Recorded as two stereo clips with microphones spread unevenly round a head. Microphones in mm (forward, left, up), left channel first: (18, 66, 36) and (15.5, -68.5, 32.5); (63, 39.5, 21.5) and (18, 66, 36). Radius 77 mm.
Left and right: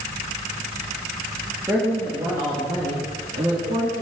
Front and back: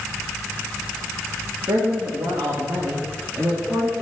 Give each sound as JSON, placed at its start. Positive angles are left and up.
{"t": 1.7, "sound": "a woman speaking", "azimuth_deg": -170, "distance_m": 3.0}